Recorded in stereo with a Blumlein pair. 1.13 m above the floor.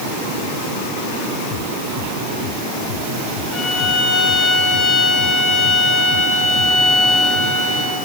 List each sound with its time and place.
3.5 s a violin: 30° left, 4 m